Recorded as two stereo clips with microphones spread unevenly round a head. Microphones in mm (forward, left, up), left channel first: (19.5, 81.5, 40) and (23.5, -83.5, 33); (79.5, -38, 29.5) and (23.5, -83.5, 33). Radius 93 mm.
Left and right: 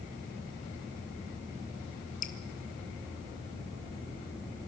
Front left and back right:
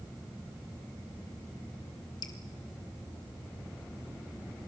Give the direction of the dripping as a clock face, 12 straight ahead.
10 o'clock.